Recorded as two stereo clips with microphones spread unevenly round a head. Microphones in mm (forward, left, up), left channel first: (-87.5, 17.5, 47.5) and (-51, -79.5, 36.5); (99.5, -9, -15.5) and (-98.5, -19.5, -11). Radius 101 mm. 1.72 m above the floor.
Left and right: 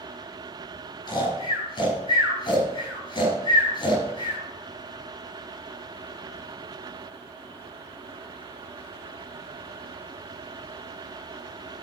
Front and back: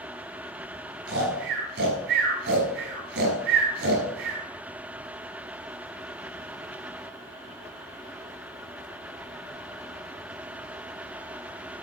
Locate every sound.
1.1 s snoring: 150° left, 5.5 m